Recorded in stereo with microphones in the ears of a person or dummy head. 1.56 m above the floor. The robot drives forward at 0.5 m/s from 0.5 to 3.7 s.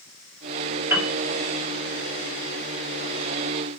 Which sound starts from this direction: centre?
A piano, at 0.9 s.